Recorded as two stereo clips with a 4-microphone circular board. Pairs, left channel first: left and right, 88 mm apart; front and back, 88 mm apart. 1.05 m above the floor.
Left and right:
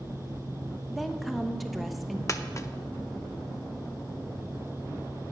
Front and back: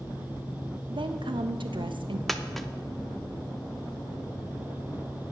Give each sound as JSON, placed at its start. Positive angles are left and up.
{"t": 0.9, "sound": "a woman speaking", "azimuth_deg": 180, "distance_m": 0.8}
{"t": 2.3, "sound": "a dropped coin", "azimuth_deg": 85, "distance_m": 0.6}